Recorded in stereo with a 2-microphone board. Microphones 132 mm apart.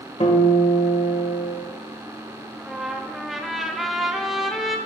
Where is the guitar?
60° left (ahead or behind), 1.7 m.